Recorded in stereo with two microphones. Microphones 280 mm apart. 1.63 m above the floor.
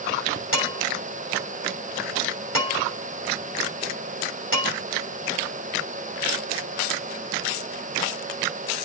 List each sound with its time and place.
0.5 s dishes clattering: 50° left (ahead or behind), 6 m